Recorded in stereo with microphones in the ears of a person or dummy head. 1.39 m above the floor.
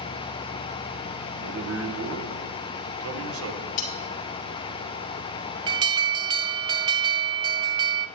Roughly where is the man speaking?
Right.